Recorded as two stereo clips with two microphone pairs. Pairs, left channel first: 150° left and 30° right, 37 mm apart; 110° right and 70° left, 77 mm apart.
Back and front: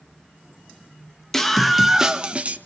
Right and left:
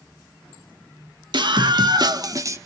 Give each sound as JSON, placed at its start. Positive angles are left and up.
{"t": 1.3, "sound": "a scream", "azimuth_deg": 75, "distance_m": 1.8}